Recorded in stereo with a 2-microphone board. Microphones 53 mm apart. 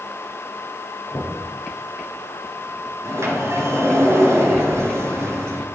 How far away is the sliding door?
About 3.5 m.